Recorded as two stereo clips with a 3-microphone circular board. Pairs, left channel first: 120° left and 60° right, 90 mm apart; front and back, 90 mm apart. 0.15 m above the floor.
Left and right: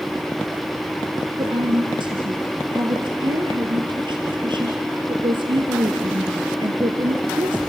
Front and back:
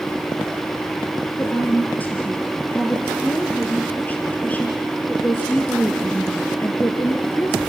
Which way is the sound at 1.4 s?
70° right.